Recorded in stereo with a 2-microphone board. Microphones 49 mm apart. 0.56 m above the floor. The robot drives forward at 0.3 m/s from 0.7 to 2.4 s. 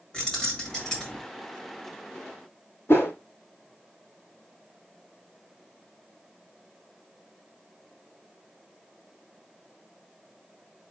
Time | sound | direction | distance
0.1 | keys jangling | 15° left (ahead or behind) | 1.8 m
2.9 | a whoosh | 55° left (ahead or behind) | 1.5 m